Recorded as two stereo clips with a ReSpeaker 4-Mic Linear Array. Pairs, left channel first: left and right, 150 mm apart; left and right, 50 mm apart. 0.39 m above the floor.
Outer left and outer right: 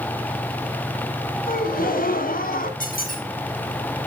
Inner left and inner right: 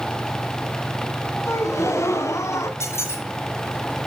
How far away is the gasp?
About 1.5 m.